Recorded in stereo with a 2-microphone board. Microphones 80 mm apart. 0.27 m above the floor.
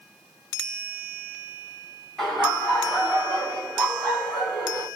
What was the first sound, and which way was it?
Laughter, 5° left (ahead or behind).